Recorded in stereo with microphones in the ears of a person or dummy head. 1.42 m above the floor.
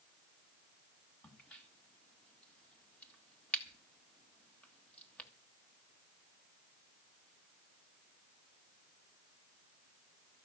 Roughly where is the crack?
Centre.